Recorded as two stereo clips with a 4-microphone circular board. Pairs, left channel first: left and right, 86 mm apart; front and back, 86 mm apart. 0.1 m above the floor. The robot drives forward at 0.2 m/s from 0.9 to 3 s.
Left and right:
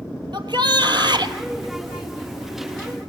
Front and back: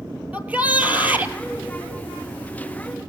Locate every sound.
0.3 s a shout: 110° right, 2 m; by 1.4 s 115° right, 2 m